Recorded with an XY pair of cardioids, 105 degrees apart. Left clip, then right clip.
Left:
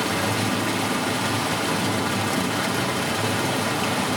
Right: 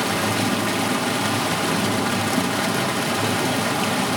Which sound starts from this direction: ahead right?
Running water, at 0.0 s.